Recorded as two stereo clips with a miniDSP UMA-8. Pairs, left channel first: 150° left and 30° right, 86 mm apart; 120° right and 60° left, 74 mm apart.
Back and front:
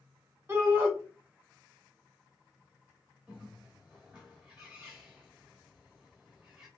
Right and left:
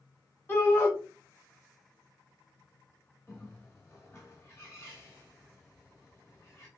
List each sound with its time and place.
0.5 s a shout: 70° right, 1.6 m
3.3 s a bird: 100° right, 1.3 m